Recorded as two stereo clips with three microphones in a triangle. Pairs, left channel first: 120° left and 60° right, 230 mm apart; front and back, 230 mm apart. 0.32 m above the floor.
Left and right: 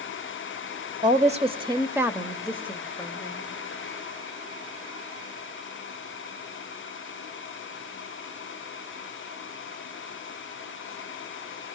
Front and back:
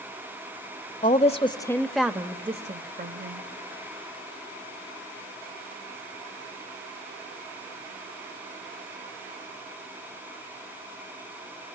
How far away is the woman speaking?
About 1.2 m.